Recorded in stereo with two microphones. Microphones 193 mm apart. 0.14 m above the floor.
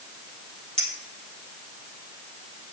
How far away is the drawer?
I don't hear a drawer.